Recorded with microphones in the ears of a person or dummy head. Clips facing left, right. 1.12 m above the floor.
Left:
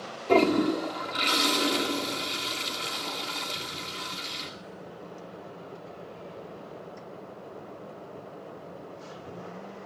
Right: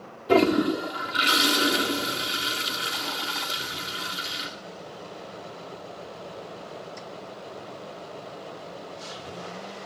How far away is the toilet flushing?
About 1.7 m.